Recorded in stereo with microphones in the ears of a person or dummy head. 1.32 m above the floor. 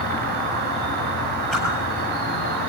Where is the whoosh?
Centre (ahead or behind), 8.5 m.